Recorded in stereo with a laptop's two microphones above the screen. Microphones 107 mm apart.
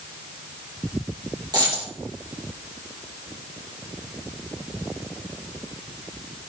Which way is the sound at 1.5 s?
40° right (ahead or behind).